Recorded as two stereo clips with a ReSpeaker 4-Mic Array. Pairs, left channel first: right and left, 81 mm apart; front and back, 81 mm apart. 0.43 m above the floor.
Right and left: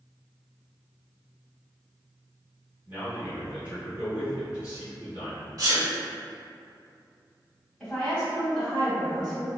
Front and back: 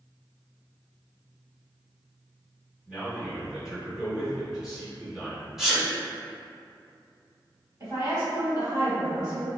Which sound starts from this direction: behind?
A woman speaking, at 7.8 s.